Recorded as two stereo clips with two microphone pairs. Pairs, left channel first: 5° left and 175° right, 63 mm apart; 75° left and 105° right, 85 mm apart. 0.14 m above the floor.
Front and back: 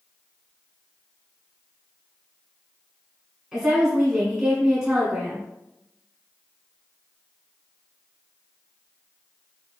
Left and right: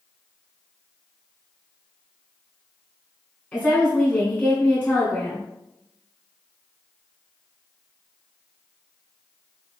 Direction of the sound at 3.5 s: 120° left.